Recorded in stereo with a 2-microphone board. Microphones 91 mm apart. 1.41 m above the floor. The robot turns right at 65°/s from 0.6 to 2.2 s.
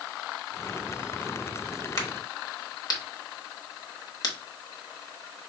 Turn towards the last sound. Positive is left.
turn(degrees=45)  # may be behind; listen again after turning